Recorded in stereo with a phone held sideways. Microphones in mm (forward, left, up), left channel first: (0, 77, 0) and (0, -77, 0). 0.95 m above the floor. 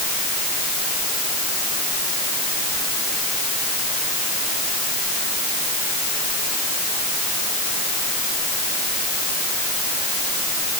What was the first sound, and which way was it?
Only background noise.